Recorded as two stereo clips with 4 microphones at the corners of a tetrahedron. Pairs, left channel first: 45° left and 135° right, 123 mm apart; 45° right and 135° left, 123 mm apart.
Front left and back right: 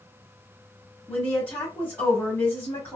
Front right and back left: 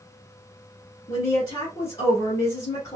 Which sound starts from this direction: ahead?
A woman speaking, at 1.1 s.